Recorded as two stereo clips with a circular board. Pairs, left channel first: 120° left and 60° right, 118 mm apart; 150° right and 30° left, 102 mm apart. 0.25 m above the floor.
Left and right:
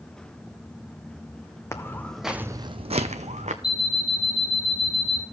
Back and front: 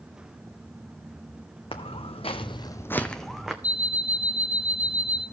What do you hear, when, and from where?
1.7 s footsteps: 175° right, 0.8 m; by 3.5 s 55° right, 0.9 m
3.6 s an alarm clock: 165° left, 1.4 m